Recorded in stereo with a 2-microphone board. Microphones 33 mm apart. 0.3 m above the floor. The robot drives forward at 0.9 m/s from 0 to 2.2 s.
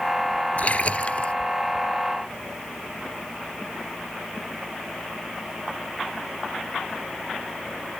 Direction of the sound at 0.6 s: 45° left (ahead or behind).